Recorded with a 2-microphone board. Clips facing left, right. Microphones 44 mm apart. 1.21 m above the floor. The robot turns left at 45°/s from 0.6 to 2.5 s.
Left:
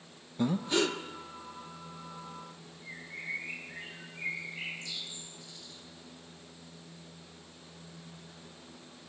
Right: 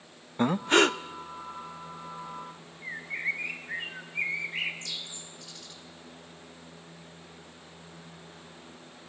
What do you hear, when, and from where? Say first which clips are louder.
0.4 s breathing: right 6 dB; 50° right (ahead or behind), 0.6 m; by 1.0 s 65° right (ahead or behind), 0.6 m
2.8 s a bird: right 9 dB; 75° right (ahead or behind), 2 m